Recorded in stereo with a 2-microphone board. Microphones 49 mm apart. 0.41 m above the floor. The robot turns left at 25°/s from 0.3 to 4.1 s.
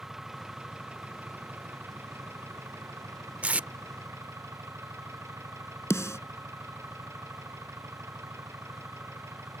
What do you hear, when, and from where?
0.0 s an engine running: 10° right; by 9.6 s 105° right
3.4 s tape being pulled: 30° right (ahead or behind); by 3.7 s 35° right (ahead or behind)
5.9 s a snare drum: 80° left